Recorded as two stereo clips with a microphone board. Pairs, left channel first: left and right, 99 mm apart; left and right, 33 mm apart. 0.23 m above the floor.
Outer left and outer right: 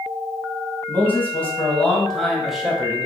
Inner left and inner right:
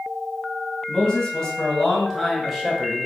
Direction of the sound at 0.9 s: 20° left (ahead or behind).